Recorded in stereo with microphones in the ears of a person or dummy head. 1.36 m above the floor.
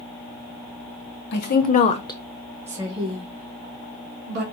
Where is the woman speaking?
65° left (ahead or behind), 1.1 m; by 4.4 s 50° right (ahead or behind), 2 m.